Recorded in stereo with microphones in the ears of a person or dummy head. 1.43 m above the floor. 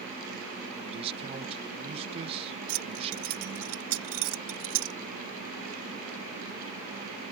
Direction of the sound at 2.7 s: 80° right.